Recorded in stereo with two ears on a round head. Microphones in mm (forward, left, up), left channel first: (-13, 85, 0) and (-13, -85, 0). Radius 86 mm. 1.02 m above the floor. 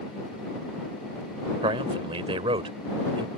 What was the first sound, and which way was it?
A man speaking, 25° right (ahead or behind).